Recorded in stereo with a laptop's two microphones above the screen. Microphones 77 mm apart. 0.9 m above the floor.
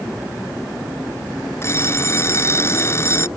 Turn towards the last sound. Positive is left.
turn(degrees=35)  # may be behind; listen again after turning